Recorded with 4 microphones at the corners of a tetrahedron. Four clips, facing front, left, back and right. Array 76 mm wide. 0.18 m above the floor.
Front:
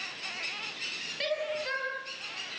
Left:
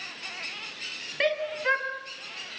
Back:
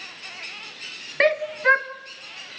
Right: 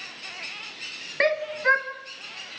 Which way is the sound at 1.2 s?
160° right.